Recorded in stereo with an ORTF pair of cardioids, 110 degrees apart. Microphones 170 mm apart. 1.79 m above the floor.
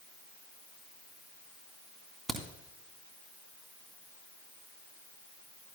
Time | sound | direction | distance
2.3 | a crack | straight ahead | 3 m